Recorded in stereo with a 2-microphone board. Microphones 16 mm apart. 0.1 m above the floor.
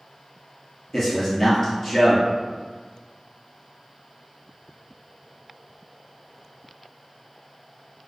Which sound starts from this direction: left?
A man speaking, at 0.9 s.